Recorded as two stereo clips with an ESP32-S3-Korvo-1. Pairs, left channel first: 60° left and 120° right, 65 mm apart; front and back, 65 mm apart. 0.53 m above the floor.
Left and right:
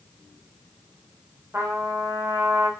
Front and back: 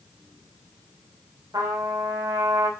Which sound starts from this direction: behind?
A trumpet, at 1.5 s.